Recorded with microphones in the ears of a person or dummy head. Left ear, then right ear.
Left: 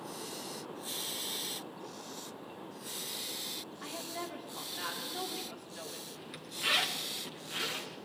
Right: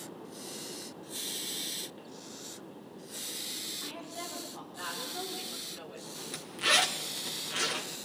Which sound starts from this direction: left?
A woman speaking, at 3.8 s.